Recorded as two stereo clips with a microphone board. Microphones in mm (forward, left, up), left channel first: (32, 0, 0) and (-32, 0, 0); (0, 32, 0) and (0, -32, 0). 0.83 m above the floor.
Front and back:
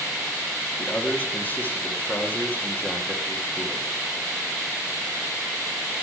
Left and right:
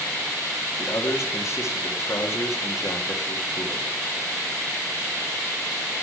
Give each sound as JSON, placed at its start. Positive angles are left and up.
{"t": 0.8, "sound": "a man speaking", "azimuth_deg": 60, "distance_m": 1.7}